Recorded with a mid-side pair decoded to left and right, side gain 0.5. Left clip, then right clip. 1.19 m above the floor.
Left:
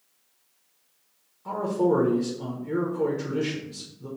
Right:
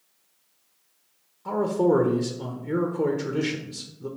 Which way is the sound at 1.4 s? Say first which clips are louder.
Right 2 dB; 20° right.